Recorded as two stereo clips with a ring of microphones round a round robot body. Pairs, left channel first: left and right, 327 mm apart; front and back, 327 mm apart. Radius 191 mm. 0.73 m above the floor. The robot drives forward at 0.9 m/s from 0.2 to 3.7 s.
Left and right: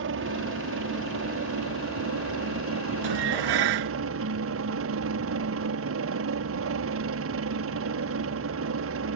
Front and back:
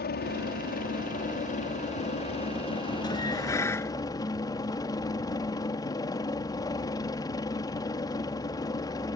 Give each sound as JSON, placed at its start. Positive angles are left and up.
{"t": 0.0, "sound": "a helicopter", "azimuth_deg": -50}
{"t": 3.0, "sound": "dishes clattering", "azimuth_deg": -80}